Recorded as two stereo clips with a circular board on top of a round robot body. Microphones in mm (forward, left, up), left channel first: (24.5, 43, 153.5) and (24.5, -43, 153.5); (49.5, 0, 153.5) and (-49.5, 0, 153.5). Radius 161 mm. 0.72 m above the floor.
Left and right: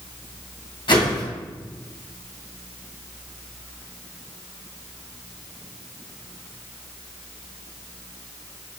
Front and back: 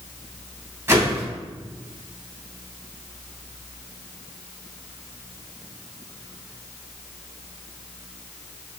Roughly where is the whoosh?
Behind left.